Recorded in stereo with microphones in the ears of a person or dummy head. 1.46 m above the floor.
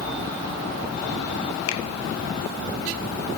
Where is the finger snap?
80° left, 1.3 m.